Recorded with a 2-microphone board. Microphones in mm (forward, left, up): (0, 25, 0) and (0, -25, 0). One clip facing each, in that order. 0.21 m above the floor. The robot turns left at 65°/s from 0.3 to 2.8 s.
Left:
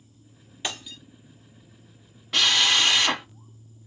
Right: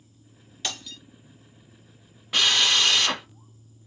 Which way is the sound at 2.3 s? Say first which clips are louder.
Even; 175° right.